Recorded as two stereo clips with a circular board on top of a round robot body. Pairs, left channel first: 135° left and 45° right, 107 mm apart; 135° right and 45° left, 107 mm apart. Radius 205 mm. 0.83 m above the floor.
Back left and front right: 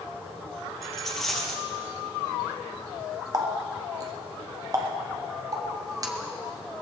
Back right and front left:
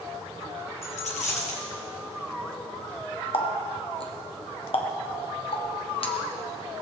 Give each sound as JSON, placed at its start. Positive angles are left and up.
{"t": 0.8, "sound": "a dropped coin", "azimuth_deg": -140, "distance_m": 2.0}
{"t": 3.3, "sound": "a running tap", "azimuth_deg": -100, "distance_m": 1.4}